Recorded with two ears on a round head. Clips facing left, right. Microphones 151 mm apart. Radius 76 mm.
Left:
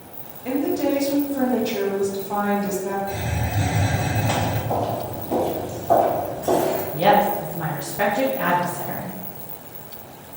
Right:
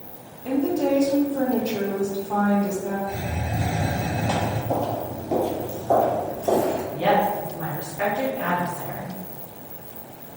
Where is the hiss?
5° left (ahead or behind), 1.5 m.